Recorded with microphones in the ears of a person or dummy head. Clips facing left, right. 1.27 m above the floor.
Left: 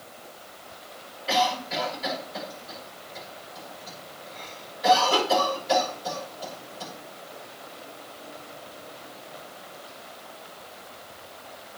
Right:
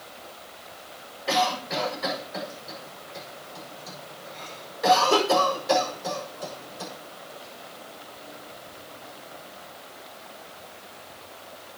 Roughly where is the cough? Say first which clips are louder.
Even; right.